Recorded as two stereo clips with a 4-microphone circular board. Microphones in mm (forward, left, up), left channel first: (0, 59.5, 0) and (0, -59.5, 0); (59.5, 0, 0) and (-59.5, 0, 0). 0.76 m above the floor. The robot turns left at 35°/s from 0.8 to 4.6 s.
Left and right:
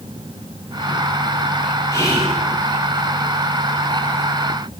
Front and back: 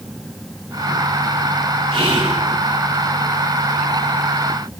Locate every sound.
1.9 s whispering: 150° left, 4 m; by 2.4 s 135° left, 4 m